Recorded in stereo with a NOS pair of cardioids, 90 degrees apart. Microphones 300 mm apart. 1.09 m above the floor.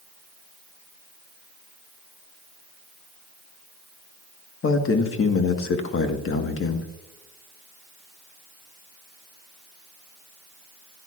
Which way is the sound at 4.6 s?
45° left.